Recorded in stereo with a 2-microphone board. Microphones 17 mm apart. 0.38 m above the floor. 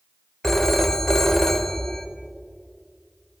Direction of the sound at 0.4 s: 20° left (ahead or behind).